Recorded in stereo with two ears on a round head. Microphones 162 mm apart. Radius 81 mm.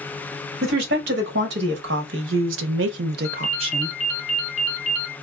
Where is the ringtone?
35° left (ahead or behind), 1.0 m.